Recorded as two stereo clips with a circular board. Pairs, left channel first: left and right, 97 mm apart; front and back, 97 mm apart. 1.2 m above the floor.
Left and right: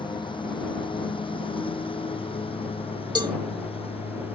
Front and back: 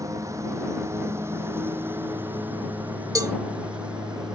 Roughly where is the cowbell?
Behind right.